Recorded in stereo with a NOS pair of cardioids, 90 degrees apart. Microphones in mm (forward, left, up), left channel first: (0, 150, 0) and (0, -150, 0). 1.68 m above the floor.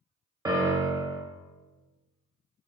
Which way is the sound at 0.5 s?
10° right.